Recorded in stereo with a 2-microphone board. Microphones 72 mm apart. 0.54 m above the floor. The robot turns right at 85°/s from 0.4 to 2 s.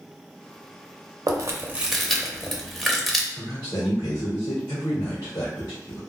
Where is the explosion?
I don't hear an explosion.